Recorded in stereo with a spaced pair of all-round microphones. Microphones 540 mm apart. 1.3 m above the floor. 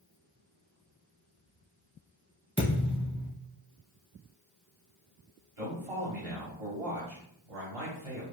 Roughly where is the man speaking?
Right.